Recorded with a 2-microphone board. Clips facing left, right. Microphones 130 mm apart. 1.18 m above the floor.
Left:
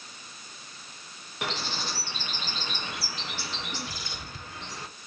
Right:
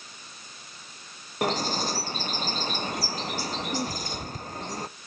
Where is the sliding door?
I don't hear a sliding door.